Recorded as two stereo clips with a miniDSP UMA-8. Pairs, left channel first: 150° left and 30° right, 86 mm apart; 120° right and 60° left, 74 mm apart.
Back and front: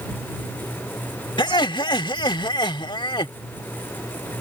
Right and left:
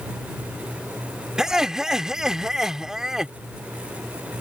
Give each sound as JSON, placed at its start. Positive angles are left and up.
{"t": 1.4, "sound": "laughter", "azimuth_deg": 140}